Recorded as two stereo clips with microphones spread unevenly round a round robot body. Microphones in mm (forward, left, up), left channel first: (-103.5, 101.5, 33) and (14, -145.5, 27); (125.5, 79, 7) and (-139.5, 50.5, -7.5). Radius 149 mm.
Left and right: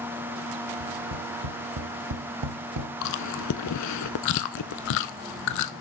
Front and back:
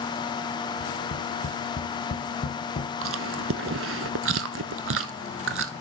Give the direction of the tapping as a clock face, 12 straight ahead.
2 o'clock.